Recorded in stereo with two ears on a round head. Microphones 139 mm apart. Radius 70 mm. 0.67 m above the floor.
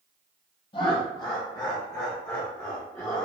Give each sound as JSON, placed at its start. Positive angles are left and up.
{"t": 0.7, "sound": "laughter", "side_deg": 35, "distance_m": 0.8}